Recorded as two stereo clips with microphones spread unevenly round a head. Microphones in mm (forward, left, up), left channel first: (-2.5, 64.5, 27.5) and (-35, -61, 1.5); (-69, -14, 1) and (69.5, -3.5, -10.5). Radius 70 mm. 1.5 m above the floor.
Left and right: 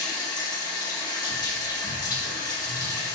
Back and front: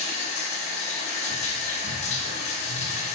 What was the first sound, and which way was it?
Running water, 140° left.